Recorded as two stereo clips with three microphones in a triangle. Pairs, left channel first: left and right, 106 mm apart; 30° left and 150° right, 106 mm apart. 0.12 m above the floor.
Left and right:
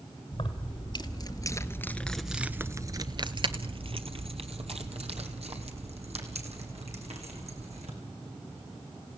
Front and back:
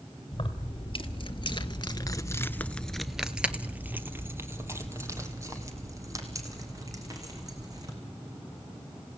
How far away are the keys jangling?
About 2 m.